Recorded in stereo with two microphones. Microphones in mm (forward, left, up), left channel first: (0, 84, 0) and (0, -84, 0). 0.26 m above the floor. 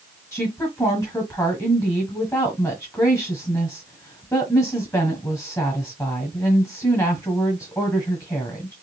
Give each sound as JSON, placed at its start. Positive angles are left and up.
{"t": 0.3, "sound": "a woman speaking", "side_deg": 15, "distance_m": 1.4}